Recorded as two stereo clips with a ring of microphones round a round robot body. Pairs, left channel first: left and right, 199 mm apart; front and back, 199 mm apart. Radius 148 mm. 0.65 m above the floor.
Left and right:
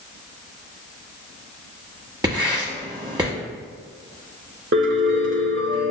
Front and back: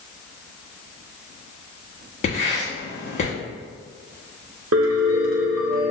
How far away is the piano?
About 0.7 m.